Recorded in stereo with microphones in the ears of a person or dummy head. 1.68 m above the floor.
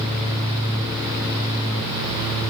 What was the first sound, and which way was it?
Only background noise.